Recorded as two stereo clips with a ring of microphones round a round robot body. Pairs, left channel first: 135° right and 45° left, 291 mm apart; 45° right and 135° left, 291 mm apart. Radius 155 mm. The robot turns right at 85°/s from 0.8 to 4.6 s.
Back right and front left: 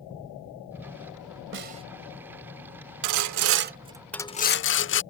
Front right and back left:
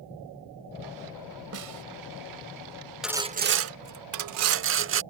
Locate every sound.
1.5 s a snare drum: 95° left; by 1.8 s 120° left
3.0 s sawing: 45° left; by 5.0 s straight behind